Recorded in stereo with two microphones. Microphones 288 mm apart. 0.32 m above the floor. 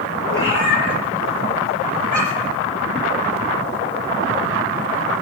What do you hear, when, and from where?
0.3 s a cat meowing: 45° left (ahead or behind), 2.0 m; by 2.6 s 75° left (ahead or behind), 2 m